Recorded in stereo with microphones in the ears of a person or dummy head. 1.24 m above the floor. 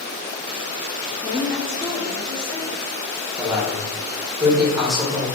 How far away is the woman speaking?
About 0.6 m.